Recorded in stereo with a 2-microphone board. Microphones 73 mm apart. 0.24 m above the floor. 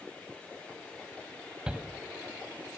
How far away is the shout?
About 1.3 m.